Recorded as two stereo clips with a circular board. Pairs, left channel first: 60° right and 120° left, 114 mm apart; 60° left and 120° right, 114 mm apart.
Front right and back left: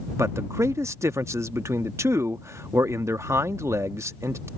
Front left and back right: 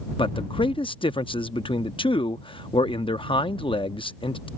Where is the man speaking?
65° left.